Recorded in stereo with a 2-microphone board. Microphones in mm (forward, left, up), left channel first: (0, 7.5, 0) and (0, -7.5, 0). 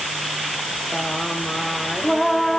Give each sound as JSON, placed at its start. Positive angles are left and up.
{"t": 0.9, "sound": "singing", "side_deg": 10}